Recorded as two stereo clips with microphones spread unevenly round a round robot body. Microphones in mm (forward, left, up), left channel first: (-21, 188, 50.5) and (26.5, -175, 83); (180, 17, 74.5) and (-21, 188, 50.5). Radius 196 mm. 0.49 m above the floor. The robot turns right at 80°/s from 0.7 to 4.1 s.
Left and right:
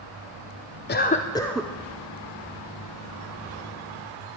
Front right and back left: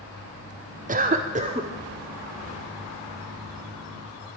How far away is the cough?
About 0.8 m.